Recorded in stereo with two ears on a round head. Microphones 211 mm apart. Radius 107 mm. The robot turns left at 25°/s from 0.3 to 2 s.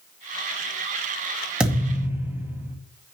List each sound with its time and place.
1.6 s a thud: 5° right (ahead or behind), 2 m; by 2.8 s 10° right (ahead or behind), 2 m